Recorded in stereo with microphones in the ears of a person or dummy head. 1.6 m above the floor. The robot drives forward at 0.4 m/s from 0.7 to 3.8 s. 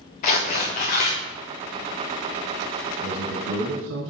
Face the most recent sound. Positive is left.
turn(degrees=-70)  # may be behind; listen again after turning